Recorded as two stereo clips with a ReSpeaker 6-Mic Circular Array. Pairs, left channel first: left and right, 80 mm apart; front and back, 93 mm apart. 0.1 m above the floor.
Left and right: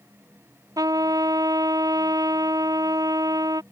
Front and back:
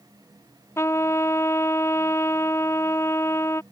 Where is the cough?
No cough in this recording.